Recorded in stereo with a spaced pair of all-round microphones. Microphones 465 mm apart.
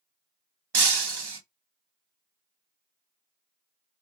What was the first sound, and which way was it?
Breaking glass, 60° right (ahead or behind).